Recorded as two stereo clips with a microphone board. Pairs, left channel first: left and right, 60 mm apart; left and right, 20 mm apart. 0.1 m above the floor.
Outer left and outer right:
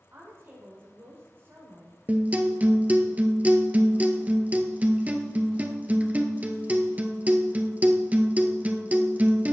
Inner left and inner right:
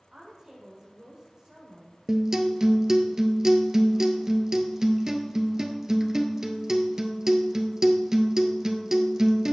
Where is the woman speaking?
40° right (ahead or behind), 6.5 m.